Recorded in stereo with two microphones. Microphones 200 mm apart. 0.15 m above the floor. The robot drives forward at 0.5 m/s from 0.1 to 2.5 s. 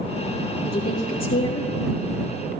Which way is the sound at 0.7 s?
75° left (ahead or behind).